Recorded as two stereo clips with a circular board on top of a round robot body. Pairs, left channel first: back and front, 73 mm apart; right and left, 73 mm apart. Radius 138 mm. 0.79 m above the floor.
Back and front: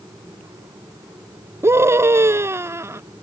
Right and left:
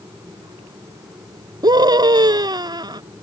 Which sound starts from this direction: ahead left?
A scream, at 1.6 s.